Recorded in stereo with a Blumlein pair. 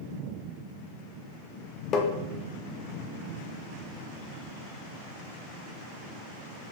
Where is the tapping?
30° left, 1.3 m.